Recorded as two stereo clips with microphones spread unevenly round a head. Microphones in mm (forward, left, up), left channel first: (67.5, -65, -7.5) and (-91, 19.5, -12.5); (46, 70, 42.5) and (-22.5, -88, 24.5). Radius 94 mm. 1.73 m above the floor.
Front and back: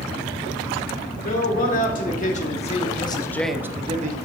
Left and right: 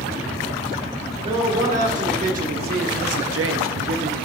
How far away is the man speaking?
About 2 m.